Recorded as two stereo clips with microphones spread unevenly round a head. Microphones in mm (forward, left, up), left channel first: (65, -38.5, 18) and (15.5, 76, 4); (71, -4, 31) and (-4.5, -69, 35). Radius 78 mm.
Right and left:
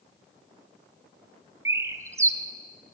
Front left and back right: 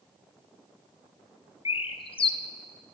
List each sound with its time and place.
1.6 s a bird: 50° left, 0.5 m